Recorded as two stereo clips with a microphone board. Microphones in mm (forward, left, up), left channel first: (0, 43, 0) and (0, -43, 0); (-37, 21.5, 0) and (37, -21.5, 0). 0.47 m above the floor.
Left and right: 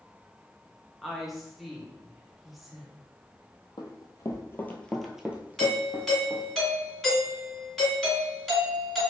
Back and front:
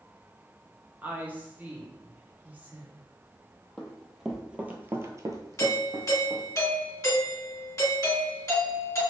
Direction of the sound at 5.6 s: Straight behind.